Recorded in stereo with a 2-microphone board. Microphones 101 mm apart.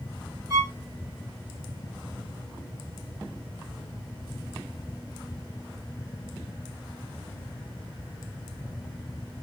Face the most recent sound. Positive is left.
turn(degrees=-35)  # may be behind; listen again after turning